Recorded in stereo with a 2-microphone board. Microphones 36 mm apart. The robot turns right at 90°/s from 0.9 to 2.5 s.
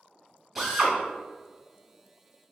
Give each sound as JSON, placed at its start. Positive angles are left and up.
{"t": 0.6, "sound": "a drill", "side_deg": -10, "distance_m": 1.4}